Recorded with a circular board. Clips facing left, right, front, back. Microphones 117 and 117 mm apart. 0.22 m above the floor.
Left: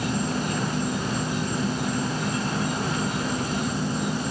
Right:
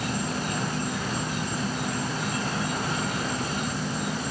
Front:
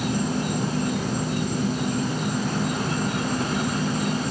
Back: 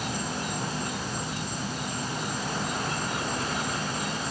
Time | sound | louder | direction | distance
0.0 | an insect | left 3 dB, front 7 dB | 25° left | ?